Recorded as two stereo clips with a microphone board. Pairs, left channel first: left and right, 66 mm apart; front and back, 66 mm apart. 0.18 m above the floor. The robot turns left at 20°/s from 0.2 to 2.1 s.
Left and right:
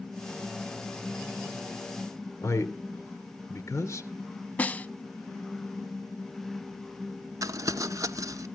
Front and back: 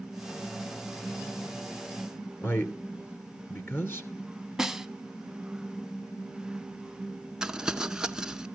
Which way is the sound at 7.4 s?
100° right.